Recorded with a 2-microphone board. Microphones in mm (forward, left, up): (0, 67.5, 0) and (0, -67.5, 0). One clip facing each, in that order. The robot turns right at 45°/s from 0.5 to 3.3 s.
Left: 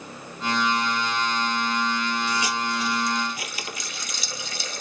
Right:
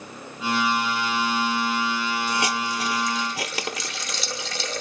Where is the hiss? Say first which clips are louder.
Right 1 dB; 50° right (ahead or behind), 1.1 m; by 4.8 s 80° right, 1.1 m.